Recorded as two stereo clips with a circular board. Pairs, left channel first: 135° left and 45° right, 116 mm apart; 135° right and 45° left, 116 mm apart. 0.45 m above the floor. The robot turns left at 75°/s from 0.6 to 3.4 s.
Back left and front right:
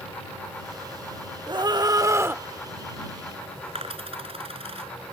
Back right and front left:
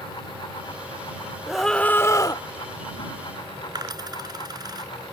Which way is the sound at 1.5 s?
35° right.